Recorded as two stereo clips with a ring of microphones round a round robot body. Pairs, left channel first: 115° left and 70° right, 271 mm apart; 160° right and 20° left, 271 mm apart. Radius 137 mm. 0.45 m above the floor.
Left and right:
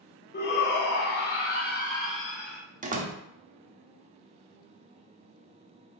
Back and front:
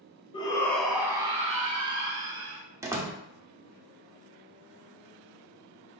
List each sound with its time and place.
0.3 s a shout: 140° left, 0.8 m; by 2.6 s 50° left, 1.2 m
2.8 s a door slam: 45° right, 0.7 m